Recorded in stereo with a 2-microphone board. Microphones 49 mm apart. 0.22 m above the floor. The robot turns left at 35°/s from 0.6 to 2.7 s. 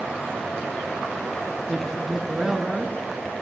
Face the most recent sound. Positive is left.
turn(degrees=-25)